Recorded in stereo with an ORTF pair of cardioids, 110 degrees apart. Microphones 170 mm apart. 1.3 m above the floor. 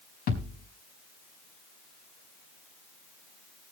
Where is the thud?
65° left, 5 m.